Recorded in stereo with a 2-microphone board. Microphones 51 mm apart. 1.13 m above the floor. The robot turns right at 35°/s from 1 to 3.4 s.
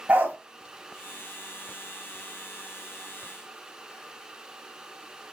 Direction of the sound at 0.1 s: 30° right (ahead or behind).